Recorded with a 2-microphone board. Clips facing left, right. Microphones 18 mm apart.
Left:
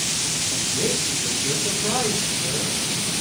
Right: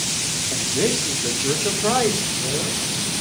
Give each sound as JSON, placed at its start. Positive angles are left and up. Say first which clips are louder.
{"t": 0.5, "sound": "a man speaking", "louder": "right 5 dB", "side_deg": -60, "distance_m": 3.0}